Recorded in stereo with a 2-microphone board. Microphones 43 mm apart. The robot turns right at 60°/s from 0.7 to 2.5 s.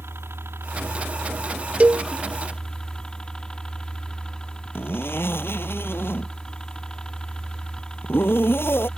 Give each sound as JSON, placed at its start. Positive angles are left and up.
{"t": 0.0, "sound": "a helicopter", "azimuth_deg": -90}
{"t": 1.8, "sound": "a cowbell", "side_deg": -30}
{"t": 4.8, "sound": "a zipper", "side_deg": 60}